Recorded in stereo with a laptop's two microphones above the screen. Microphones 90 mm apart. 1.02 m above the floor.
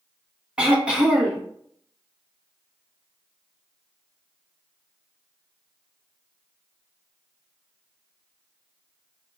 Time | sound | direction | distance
0.6 | throat clearing | 10° right (ahead or behind) | 1.0 m